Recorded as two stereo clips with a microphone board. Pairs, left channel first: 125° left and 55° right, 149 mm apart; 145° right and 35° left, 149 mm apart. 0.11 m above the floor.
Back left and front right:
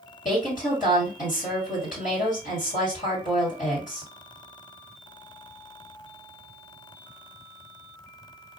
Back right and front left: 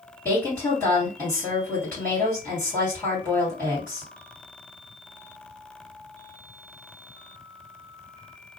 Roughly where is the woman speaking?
Behind left.